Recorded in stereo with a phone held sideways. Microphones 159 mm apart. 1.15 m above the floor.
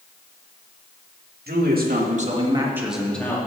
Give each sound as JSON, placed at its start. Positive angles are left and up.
{"t": 1.5, "sound": "a man speaking", "side_deg": -80, "distance_m": 2.0}